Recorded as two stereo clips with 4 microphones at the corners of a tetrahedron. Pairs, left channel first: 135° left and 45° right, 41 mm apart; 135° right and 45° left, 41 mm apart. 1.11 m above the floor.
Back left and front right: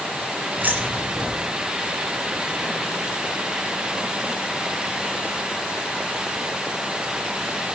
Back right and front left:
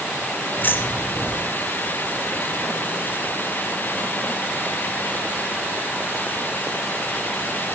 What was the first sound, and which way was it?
Keys jangling, 90° right.